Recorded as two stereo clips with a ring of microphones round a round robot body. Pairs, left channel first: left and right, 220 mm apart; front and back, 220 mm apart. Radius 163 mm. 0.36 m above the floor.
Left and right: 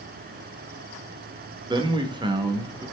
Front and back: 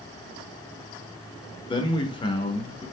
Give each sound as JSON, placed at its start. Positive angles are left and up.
{"t": 1.7, "sound": "a man speaking", "azimuth_deg": -45, "distance_m": 0.9}